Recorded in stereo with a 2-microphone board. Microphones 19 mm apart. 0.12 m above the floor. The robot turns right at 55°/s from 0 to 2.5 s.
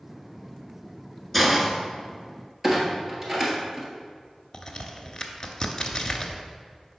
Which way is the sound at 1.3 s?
5° left (ahead or behind).